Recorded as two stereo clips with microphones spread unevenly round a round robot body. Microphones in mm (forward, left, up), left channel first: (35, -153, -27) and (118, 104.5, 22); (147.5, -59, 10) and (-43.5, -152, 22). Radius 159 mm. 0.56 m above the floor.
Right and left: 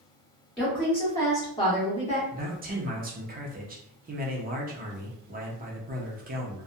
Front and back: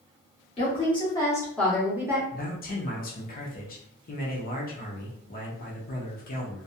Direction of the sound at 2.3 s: 15° left.